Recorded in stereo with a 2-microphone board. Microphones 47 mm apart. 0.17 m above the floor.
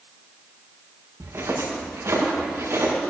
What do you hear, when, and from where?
1.2 s footsteps: 75° right (ahead or behind), 5 m; by 2.9 s 90° right, 6 m